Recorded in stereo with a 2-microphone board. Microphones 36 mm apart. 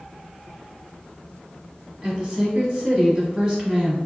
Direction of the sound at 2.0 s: 20° right (ahead or behind).